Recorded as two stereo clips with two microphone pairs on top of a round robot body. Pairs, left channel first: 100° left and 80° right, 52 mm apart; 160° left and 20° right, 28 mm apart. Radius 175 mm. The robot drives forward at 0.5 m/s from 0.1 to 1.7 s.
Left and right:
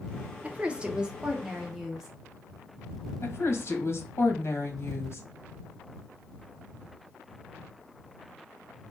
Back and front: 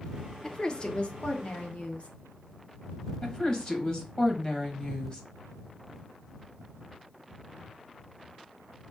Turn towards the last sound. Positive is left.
turn(degrees=115)